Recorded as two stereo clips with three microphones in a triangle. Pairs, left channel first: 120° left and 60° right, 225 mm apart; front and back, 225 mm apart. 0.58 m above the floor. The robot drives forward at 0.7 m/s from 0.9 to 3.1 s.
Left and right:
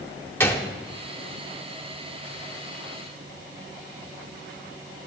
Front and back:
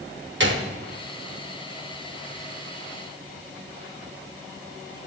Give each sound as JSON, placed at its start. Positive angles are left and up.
{"t": 0.4, "sound": "a gunshot", "azimuth_deg": -160, "distance_m": 0.7}